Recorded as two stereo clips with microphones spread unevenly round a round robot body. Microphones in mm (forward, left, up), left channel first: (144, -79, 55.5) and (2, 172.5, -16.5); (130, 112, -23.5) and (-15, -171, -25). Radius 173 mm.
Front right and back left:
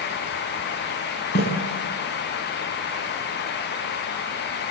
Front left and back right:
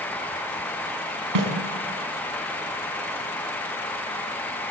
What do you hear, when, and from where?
1.4 s a snare drum: 125° right, 5.5 m